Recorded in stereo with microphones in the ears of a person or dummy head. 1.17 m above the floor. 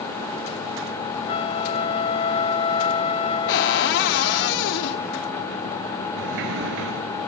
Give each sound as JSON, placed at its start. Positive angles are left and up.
{"t": 1.3, "sound": "a flute", "side_deg": 35, "distance_m": 2.5}
{"t": 3.5, "sound": "a cupboard door", "side_deg": 60, "distance_m": 1.2}
{"t": 6.2, "sound": "a sliding door", "side_deg": -70, "distance_m": 3.5}